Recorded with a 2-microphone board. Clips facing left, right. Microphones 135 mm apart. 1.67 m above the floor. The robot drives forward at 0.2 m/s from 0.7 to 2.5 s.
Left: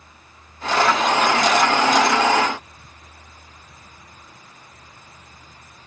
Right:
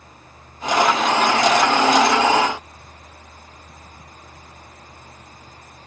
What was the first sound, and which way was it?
Only background noise.